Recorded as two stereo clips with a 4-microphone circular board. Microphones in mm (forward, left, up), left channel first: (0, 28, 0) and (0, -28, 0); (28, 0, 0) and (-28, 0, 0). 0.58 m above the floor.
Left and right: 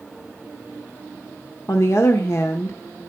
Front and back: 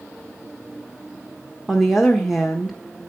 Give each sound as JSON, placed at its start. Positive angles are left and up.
{"t": 1.7, "sound": "a woman speaking", "azimuth_deg": 90, "distance_m": 1.2}